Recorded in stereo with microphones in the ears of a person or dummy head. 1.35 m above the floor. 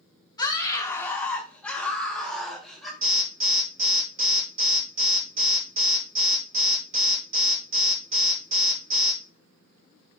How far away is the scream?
About 1.5 m.